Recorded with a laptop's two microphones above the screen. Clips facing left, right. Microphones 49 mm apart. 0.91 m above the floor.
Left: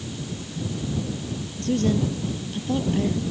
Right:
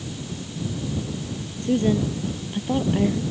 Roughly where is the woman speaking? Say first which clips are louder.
Right 2 dB; centre.